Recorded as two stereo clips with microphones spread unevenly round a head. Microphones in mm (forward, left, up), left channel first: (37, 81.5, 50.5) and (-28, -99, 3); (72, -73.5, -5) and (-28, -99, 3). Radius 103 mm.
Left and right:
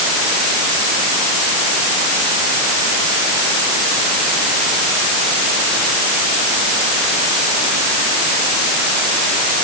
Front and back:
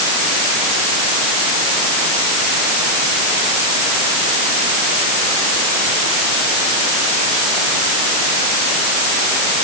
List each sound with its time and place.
Only background noise.